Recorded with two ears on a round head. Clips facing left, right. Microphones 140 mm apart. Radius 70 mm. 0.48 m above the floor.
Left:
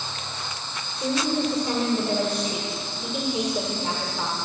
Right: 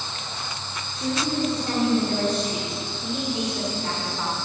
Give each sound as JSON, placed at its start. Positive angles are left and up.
{"t": 1.0, "sound": "a woman speaking", "side_deg": 10, "distance_m": 1.7}